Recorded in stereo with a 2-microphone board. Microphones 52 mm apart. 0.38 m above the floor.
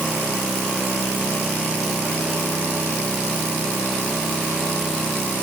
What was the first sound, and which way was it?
Only background noise.